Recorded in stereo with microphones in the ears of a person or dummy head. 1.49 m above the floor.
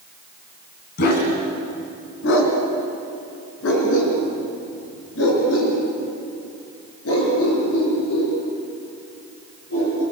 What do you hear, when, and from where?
1.0 s a dog barking: 55° left (ahead or behind), 3.5 m; by 10.0 s 80° left, 8.5 m